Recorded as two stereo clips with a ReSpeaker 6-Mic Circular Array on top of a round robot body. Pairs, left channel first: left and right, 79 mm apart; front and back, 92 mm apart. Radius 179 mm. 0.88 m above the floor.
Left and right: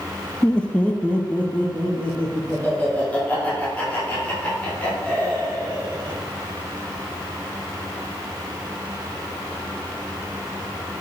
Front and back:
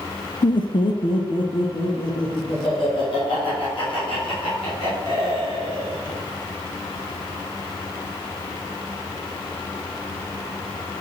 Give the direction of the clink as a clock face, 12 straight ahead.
I don't hear a clink.